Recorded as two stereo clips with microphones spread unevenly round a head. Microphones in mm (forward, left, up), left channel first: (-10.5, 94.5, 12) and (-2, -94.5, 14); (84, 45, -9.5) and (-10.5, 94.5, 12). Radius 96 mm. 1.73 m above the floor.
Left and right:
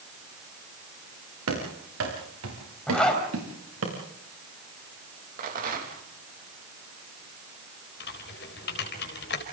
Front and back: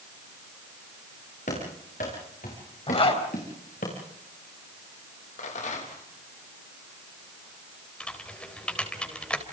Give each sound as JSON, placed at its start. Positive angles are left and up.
{"t": 1.5, "sound": "running footsteps", "azimuth_deg": -75, "distance_m": 7.0}
{"t": 2.9, "sound": "a zipper", "azimuth_deg": 5, "distance_m": 4.5}
{"t": 5.4, "sound": "a rattle", "azimuth_deg": -40, "distance_m": 3.5}
{"t": 8.0, "sound": "typing on a keyboard", "azimuth_deg": 55, "distance_m": 4.0}